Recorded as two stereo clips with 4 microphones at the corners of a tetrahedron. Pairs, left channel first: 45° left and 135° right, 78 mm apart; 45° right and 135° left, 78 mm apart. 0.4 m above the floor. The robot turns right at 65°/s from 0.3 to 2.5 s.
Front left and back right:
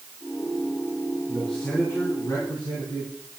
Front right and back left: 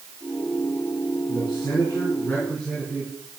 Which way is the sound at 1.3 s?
50° right.